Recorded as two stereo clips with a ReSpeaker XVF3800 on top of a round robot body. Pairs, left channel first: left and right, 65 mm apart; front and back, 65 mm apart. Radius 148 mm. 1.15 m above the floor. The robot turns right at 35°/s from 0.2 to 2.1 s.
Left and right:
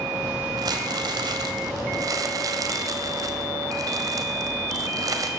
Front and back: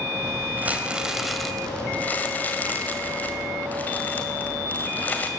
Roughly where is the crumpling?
Behind right.